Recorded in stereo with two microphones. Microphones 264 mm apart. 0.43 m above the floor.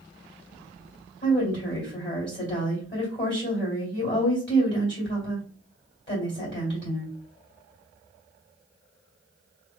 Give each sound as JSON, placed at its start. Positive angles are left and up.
{"t": 1.2, "sound": "a woman speaking", "side_deg": 40, "distance_m": 2.0}